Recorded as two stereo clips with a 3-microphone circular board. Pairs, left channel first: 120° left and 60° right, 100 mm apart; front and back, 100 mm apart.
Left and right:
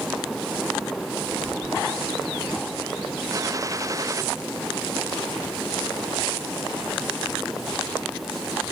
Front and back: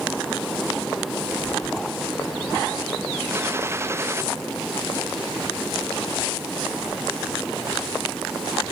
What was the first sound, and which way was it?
A gunshot, 115° right.